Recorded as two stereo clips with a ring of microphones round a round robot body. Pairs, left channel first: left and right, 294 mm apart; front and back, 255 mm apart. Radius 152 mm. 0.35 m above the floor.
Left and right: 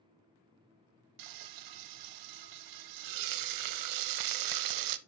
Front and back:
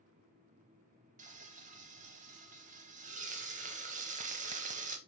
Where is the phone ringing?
No phone ringing in this recording.